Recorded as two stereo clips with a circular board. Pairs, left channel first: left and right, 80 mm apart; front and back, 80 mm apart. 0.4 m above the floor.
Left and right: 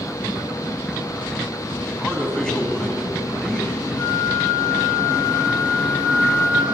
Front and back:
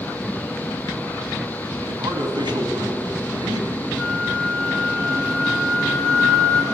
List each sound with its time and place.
1.9 s a man speaking: 170° left, 3 m
4.0 s a flute: 80° left, 1.9 m